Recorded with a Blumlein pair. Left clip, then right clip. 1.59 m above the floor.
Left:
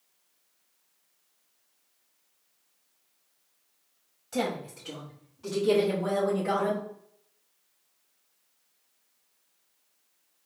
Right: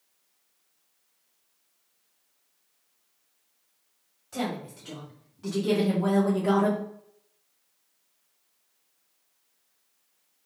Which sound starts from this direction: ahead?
A woman speaking, at 4.3 s.